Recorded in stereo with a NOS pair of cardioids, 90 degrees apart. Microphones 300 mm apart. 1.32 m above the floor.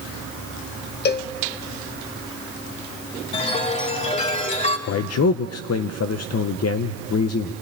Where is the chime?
25° left, 3 m.